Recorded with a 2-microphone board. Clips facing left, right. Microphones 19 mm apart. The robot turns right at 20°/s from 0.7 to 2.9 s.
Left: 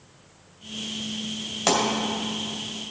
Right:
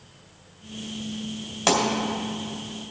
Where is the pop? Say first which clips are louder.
Right 1 dB; 10° left (ahead or behind), 2 m; by 1.8 s 5° left (ahead or behind), 2 m.